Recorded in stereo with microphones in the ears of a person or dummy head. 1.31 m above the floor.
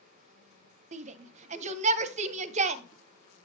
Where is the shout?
40° right (ahead or behind), 0.6 m.